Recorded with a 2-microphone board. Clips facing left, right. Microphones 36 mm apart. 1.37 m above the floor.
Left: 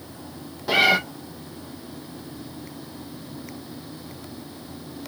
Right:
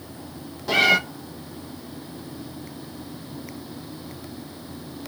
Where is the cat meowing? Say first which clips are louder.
Even; 15° left (ahead or behind), 0.5 m.